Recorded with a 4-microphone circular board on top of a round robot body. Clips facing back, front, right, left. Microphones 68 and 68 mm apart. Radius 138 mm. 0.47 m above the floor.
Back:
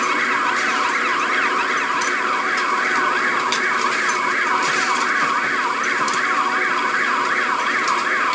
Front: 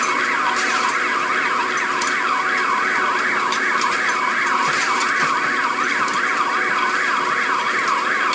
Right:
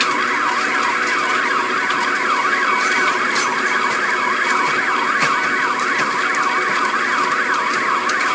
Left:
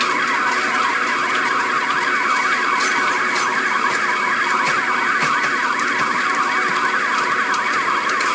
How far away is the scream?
I don't hear a scream.